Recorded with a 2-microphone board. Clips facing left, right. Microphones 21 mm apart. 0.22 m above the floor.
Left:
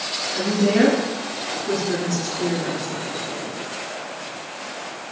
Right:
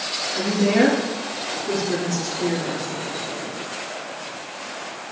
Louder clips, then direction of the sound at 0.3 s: Even; centre (ahead or behind).